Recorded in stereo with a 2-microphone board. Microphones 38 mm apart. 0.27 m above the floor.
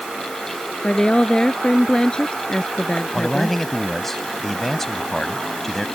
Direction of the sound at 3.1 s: 10° left (ahead or behind).